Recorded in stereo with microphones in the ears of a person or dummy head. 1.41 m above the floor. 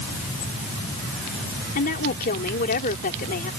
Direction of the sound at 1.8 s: 50° left (ahead or behind).